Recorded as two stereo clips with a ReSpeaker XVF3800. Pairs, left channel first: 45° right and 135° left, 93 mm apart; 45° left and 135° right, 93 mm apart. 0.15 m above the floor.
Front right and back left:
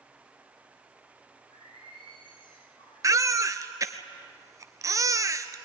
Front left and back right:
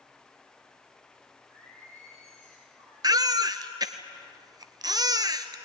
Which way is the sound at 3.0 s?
175° right.